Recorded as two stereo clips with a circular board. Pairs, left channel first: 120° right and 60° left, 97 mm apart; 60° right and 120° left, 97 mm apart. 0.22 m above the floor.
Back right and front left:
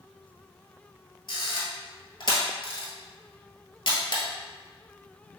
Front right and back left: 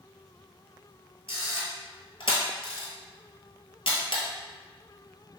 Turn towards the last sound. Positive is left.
turn(degrees=-80)